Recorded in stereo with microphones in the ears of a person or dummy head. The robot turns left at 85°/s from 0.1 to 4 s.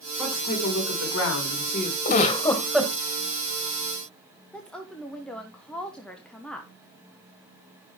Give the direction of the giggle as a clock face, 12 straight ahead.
10 o'clock.